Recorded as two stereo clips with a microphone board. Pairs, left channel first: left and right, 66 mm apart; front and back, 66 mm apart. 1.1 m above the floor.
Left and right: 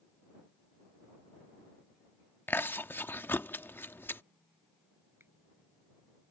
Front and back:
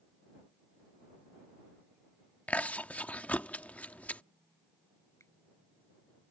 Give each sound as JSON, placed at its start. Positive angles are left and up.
{"t": 2.5, "sound": "chewing", "azimuth_deg": 55}
{"t": 5.2, "sound": "a finger snap", "azimuth_deg": -40}